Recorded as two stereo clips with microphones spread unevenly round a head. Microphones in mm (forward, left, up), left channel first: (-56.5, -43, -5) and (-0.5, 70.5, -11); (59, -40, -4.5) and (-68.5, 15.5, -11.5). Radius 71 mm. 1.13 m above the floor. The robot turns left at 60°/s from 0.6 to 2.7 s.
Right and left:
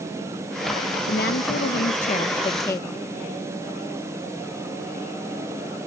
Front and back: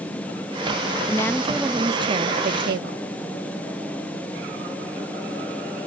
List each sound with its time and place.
1.1 s a woman speaking: 90° right; by 3.0 s 175° left